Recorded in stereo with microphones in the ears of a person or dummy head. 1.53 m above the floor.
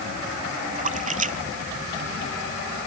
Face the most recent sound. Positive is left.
turn(degrees=-35)  # may be behind; listen again after turning